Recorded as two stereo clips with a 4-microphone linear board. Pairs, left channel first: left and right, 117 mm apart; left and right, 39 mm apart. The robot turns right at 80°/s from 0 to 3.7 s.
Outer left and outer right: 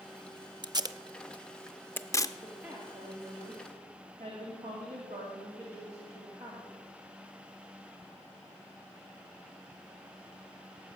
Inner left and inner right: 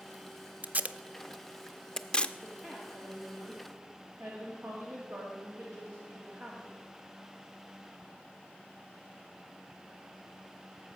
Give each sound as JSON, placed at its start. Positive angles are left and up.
{"t": 0.6, "sound": "tape being pulled", "side_deg": -40, "distance_m": 0.6}
{"t": 2.4, "sound": "a woman speaking", "azimuth_deg": 175, "distance_m": 2.5}